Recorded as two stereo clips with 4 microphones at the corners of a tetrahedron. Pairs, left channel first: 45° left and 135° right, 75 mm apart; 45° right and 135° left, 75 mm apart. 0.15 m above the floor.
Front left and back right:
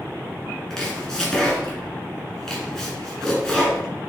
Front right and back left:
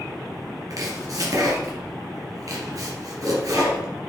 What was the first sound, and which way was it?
Chopping, 125° left.